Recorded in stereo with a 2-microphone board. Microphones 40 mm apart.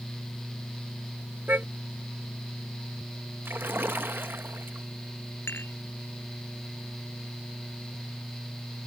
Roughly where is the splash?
Right.